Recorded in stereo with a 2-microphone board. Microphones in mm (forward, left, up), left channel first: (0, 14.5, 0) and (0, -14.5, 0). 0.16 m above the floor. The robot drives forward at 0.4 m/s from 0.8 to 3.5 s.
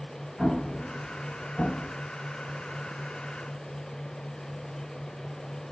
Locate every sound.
0.4 s an explosion: centre (ahead or behind), 1.5 m